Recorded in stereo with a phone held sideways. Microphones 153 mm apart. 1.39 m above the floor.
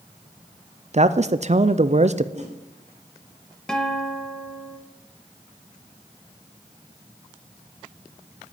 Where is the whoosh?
50° right (ahead or behind), 3 m.